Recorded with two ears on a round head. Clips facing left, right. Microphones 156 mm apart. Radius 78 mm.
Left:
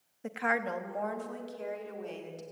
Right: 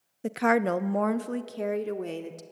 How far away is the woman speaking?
About 0.7 m.